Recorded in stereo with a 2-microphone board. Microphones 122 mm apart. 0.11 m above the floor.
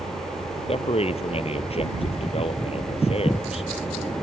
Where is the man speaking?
55° left (ahead or behind).